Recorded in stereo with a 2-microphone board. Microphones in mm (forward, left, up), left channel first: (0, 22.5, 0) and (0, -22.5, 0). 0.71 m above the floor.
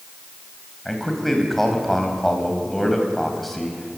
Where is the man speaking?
Centre (ahead or behind), 4.5 m.